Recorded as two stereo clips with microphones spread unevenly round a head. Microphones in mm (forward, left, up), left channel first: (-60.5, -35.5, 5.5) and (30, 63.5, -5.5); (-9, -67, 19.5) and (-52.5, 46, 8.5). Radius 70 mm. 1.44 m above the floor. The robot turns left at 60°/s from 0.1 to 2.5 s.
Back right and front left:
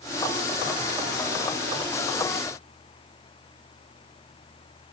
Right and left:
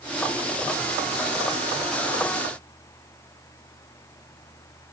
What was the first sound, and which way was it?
Only background noise.